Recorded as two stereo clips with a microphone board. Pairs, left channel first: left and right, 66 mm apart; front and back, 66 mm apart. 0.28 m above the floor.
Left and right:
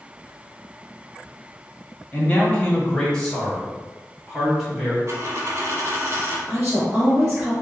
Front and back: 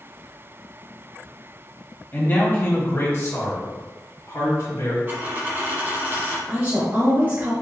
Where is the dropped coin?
130° right, 1.2 m.